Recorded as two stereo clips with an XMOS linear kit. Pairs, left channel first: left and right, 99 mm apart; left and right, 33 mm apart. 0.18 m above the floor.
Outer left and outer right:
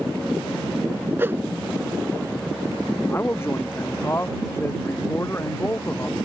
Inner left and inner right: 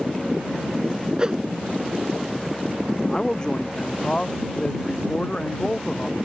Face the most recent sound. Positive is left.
turn(degrees=25)  # may be behind; listen again after turning